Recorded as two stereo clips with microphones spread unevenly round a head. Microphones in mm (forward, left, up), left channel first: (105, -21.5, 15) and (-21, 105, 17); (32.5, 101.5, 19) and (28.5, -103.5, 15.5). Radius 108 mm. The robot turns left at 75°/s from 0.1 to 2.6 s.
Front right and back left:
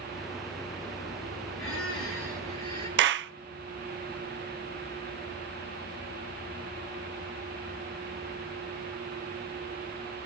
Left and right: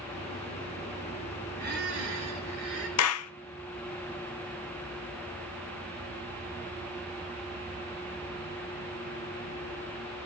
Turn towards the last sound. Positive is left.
turn(degrees=115)